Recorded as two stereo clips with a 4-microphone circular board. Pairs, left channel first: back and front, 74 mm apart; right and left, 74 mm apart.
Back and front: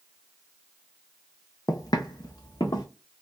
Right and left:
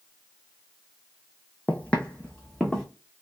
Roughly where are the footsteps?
Behind right.